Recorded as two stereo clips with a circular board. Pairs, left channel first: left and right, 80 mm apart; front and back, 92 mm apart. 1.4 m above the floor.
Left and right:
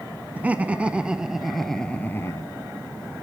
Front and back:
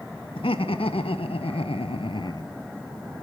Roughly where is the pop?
I don't hear a pop.